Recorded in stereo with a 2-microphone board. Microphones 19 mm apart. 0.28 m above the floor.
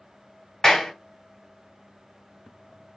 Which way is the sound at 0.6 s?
35° left (ahead or behind).